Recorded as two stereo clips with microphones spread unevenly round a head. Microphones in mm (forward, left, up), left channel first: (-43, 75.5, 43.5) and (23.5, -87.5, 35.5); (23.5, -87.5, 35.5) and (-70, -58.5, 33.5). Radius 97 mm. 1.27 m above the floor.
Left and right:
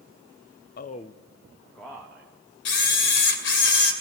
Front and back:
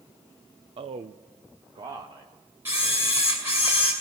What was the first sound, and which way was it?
A man speaking, 140° left.